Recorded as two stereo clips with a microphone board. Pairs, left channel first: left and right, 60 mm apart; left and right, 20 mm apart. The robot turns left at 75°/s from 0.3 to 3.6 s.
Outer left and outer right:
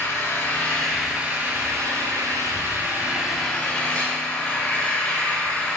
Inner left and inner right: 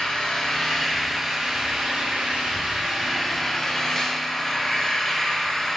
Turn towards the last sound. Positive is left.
turn(degrees=160)